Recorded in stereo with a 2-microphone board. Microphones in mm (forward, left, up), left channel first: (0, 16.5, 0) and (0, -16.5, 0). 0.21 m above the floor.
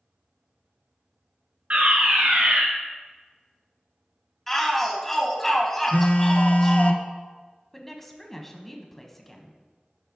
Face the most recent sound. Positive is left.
turn(degrees=10)  # may be behind; listen again after turning